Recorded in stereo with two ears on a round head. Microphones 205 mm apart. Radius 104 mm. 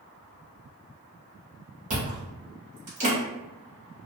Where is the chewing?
30° right (ahead or behind), 1.2 m.